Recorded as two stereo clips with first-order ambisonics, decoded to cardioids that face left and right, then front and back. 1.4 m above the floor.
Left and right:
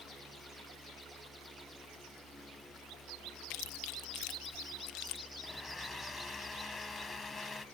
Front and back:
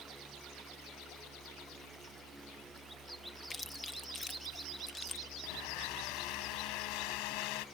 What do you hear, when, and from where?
3.5 s chewing: 75° left
5.4 s a blender: 15° left